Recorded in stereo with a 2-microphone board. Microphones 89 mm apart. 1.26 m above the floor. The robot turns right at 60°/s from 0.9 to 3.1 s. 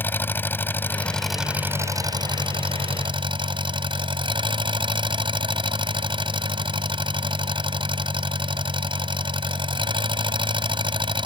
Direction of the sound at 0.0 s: 155° left.